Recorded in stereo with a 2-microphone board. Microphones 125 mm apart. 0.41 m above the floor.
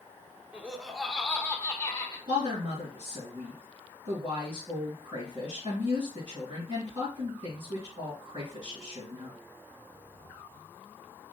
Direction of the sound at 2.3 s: 60° right (ahead or behind).